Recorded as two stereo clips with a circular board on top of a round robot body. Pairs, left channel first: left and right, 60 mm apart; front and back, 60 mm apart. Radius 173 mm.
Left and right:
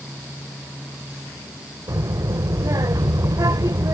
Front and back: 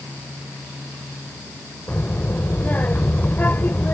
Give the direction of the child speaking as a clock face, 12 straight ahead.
2 o'clock.